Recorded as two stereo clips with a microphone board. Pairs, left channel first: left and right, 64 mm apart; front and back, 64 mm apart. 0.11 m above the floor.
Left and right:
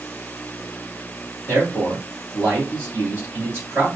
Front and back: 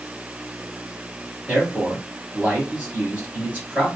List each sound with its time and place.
1.5 s a man speaking: 130° right, 2 m